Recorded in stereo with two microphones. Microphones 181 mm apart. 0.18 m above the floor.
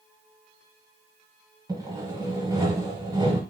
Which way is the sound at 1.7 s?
20° right (ahead or behind).